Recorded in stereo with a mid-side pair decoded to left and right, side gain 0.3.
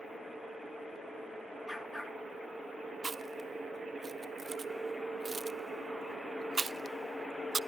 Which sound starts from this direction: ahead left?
A dog barking, at 1.7 s.